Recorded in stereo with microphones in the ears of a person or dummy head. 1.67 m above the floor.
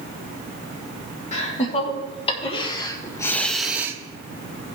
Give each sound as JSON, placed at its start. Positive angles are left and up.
{"t": 1.3, "sound": "laughter", "side_deg": 40, "distance_m": 2.5}